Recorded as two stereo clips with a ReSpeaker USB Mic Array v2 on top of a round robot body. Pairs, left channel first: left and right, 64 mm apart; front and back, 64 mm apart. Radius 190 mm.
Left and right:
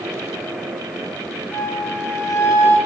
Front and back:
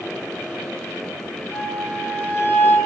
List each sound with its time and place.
1.5 s a flute: 55° left, 8 m